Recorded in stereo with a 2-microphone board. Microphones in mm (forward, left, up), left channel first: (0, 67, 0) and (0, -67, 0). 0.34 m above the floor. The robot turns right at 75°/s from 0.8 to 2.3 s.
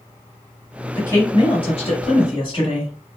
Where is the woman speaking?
20° left, 1.4 m; by 2.9 s 120° left, 1.4 m.